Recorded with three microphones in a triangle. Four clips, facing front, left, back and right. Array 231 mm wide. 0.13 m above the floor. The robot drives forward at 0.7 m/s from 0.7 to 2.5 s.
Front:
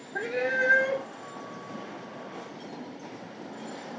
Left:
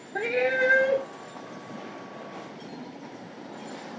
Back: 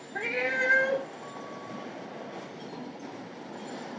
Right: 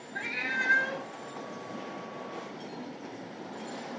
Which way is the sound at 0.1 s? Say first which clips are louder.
Left 10 dB, front 2 dB; 85° left.